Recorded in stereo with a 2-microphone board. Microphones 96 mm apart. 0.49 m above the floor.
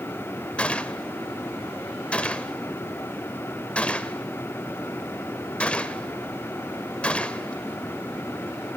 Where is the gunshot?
10° left (ahead or behind), 0.8 m.